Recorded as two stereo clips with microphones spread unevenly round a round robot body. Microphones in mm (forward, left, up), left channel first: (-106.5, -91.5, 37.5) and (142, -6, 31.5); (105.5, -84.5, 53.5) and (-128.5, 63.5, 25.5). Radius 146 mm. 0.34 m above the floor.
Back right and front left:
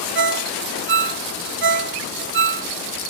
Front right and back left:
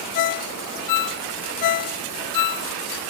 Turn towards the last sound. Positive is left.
turn(degrees=-25)